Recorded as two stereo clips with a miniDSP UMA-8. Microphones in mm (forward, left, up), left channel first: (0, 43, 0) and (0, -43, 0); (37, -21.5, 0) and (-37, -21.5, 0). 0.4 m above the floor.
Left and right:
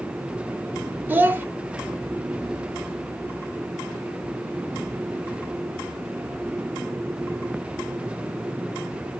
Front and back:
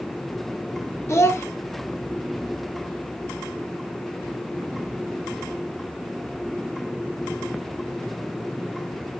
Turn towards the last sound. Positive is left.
turn(degrees=-35)